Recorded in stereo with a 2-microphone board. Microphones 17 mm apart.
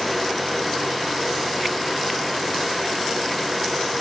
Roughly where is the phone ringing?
No phone ringing in this recording.